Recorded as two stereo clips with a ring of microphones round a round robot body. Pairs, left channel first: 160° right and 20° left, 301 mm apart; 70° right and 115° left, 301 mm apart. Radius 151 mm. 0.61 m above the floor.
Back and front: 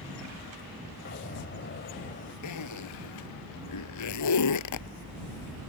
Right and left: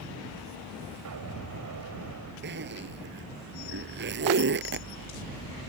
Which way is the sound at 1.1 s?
145° left.